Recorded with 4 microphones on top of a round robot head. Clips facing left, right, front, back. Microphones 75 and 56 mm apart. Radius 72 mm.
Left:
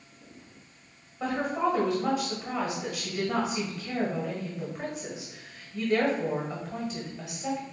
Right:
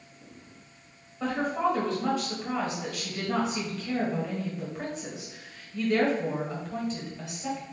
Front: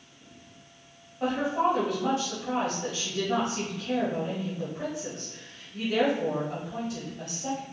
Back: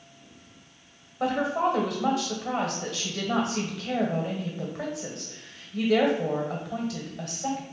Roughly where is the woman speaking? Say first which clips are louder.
Even, back 1 dB; behind.